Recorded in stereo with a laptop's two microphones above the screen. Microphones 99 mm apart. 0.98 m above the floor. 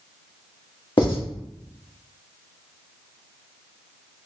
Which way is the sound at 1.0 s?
55° left (ahead or behind).